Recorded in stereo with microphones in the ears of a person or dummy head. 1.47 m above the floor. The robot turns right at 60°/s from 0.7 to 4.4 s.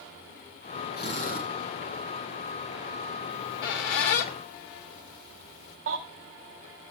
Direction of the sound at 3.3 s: 55° left (ahead or behind).